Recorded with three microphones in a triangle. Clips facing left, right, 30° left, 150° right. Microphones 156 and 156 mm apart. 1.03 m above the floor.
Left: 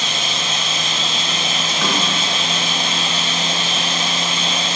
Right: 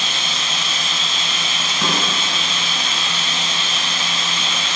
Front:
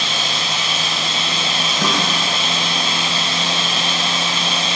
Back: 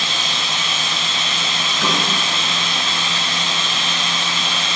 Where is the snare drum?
5° right, 1.7 m.